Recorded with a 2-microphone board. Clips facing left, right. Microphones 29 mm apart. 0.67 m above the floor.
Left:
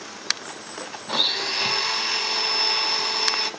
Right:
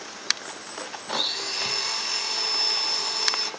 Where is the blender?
30° left (ahead or behind), 1.3 m.